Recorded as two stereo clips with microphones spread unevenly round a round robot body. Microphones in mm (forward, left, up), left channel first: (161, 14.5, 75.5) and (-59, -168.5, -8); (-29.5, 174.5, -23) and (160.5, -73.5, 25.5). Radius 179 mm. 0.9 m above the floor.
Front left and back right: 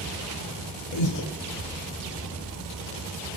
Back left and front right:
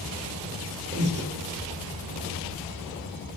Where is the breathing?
10° left, 0.5 m.